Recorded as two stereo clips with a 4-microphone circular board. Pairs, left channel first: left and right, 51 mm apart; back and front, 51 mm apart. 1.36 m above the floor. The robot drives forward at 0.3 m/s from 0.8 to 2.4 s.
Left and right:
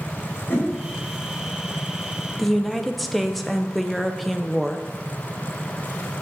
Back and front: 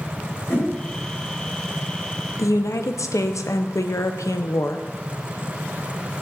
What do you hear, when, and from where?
0.5 s a whoosh: 135° left, 4.5 m
2.4 s a woman speaking: straight behind, 0.6 m